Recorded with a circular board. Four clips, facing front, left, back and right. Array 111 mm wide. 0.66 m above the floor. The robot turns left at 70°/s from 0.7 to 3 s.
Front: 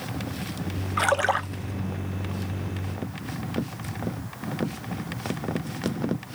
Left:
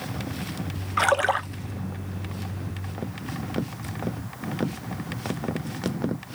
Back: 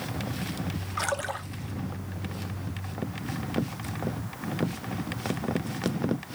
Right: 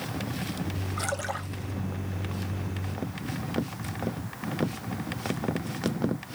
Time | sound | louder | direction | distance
1.0 | a splash | left 13 dB, front 9 dB | 70° left | 0.5 m